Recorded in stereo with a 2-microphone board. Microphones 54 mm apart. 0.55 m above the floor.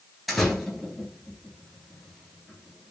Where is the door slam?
5° left (ahead or behind), 2.5 m.